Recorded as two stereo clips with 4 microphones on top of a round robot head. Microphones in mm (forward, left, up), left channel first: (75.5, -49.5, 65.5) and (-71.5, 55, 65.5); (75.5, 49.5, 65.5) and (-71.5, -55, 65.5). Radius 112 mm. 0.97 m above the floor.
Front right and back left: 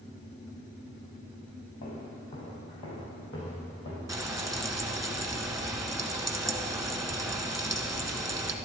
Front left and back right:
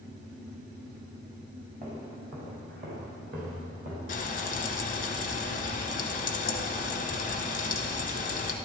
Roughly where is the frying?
Left.